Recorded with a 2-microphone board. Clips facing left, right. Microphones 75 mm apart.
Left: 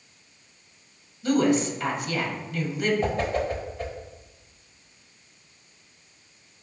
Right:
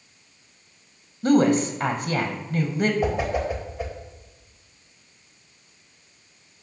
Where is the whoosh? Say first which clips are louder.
Right 1 dB; 10° right (ahead or behind), 1.4 m.